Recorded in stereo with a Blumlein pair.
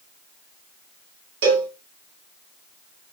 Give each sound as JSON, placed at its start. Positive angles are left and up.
{"t": 1.4, "sound": "a cowbell", "azimuth_deg": -50, "distance_m": 0.9}